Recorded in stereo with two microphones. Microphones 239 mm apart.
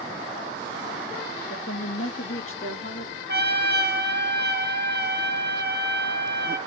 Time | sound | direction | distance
1.5 | a woman speaking | 65° left (ahead or behind) | 1.3 m
3.3 | a trumpet | 45° right (ahead or behind) | 3 m